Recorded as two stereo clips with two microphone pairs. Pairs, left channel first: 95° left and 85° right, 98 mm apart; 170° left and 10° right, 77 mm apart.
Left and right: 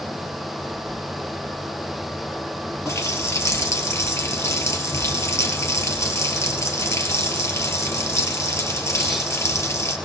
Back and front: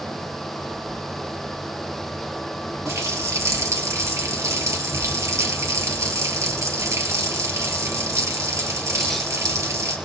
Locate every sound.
2.9 s a running tap: 40° left, 2 m